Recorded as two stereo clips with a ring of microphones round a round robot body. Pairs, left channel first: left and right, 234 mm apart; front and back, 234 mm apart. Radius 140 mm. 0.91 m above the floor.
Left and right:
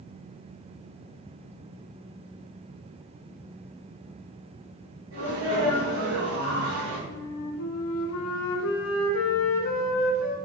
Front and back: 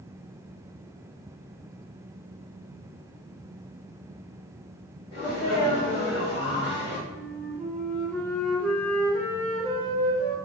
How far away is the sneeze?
About 1.7 m.